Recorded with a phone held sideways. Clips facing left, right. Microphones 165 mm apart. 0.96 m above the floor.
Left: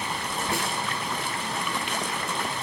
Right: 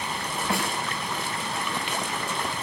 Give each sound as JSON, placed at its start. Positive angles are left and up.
{"t": 0.5, "sound": "a snare drum", "side_deg": -65, "distance_m": 8.0}